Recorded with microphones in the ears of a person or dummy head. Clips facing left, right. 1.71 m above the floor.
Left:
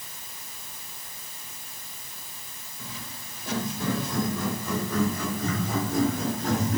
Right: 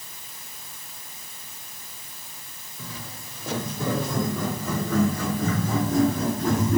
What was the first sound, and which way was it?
Footsteps, 75° right (ahead or behind).